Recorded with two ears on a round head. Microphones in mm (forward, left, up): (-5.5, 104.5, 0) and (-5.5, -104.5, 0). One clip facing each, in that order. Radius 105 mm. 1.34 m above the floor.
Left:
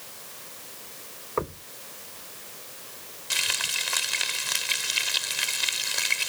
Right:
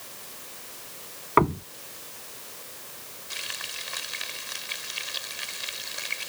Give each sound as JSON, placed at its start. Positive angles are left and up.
{"t": 1.4, "sound": "knocking", "side_deg": -85}
{"t": 3.3, "sound": "frying", "side_deg": 80}